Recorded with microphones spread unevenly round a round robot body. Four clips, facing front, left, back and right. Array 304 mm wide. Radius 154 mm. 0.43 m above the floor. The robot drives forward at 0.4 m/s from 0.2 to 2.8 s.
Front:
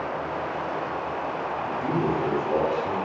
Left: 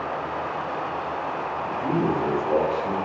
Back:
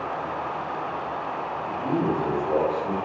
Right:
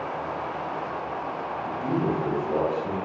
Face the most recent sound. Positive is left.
turn(degrees=90)